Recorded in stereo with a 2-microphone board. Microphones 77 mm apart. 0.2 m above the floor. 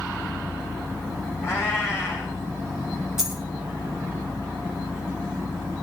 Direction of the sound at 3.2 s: 5° right (ahead or behind).